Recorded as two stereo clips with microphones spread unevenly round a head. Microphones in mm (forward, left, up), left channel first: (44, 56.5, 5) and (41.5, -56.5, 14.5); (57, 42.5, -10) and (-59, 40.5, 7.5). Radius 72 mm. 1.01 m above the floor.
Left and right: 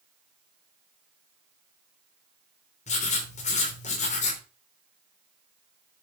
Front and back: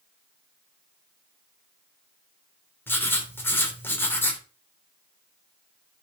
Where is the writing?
70° left, 3 m.